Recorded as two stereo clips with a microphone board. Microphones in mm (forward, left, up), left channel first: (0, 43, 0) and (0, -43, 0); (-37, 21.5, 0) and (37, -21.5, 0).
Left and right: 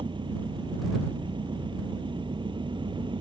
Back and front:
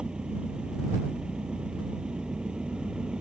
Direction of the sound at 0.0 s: 110° right.